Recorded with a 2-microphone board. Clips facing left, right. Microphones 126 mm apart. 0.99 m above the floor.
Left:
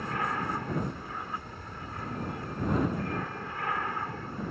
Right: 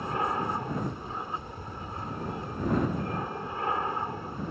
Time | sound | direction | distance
0.0 | an aircraft | 25° right (ahead or behind) | ?